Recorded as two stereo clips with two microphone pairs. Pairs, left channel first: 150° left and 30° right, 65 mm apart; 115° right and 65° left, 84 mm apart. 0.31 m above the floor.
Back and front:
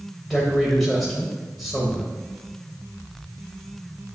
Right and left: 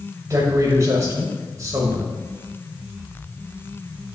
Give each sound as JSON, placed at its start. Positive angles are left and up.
{"t": 0.3, "sound": "a man speaking", "azimuth_deg": 65, "distance_m": 1.0}